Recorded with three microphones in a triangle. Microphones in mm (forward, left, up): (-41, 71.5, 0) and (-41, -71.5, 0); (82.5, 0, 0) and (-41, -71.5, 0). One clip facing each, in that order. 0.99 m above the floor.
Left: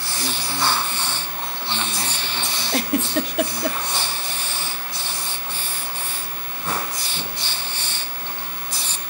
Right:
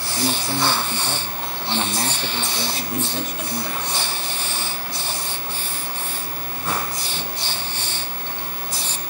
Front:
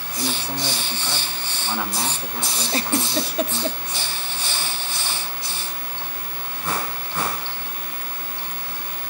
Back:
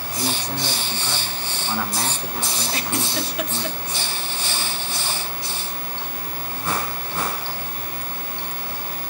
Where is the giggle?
85° left, 0.9 m.